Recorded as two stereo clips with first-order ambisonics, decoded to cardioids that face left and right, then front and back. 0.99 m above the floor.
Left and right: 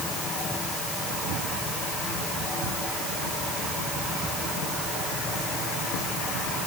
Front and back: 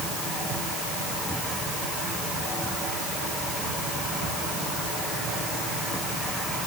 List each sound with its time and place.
Only background noise.